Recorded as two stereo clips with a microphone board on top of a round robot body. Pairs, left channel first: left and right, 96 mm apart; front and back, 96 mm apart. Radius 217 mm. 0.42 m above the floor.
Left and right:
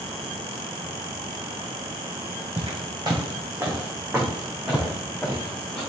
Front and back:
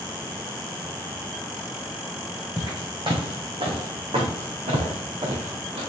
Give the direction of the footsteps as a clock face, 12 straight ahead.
4 o'clock.